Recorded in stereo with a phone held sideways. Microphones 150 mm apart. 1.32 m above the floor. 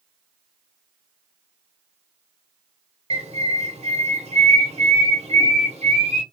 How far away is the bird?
About 1.1 m.